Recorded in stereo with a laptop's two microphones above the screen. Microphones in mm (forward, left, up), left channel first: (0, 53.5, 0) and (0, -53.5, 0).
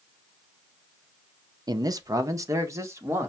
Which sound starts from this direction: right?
A man speaking, at 1.7 s.